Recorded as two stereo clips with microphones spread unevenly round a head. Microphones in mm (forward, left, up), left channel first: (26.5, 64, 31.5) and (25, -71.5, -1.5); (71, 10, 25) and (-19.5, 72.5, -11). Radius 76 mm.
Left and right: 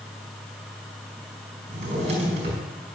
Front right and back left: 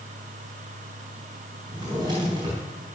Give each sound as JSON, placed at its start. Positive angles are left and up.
{"t": 1.7, "sound": "a drawer", "azimuth_deg": -145, "distance_m": 4.0}